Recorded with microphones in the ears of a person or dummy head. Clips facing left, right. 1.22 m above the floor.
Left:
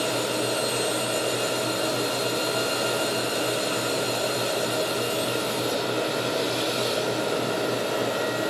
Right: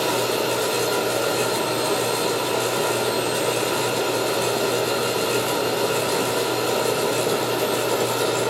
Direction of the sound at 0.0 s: 70° right (ahead or behind).